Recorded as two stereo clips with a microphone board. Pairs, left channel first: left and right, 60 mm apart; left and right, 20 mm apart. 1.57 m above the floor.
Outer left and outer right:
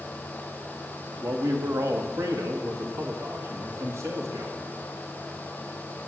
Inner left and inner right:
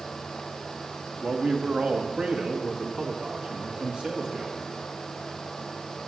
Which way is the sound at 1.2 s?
65° right (ahead or behind).